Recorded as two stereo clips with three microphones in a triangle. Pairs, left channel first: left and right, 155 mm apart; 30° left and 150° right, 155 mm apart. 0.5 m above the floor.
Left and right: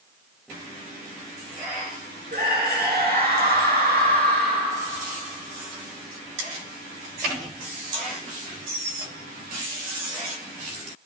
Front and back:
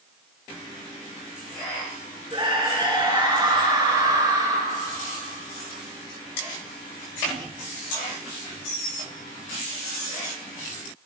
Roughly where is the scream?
Right.